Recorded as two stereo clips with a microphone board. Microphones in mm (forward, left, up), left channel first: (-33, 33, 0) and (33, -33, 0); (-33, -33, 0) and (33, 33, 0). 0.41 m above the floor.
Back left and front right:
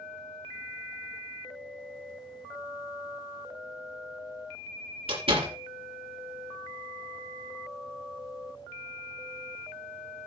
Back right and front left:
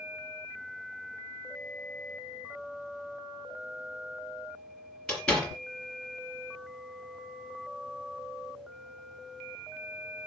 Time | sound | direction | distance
5.1 | a door slam | 55° right | 5 m